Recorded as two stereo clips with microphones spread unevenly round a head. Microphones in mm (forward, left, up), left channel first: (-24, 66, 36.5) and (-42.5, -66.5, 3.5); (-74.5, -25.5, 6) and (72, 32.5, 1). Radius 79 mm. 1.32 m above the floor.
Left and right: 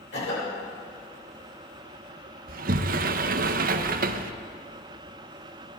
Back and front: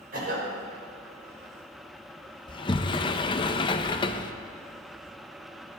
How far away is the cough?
About 5.5 m.